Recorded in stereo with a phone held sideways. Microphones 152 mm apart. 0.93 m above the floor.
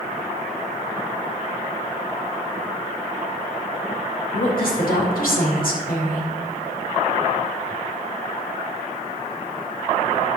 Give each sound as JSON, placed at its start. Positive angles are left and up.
{"t": 4.3, "sound": "a woman speaking", "side_deg": 75, "distance_m": 4.0}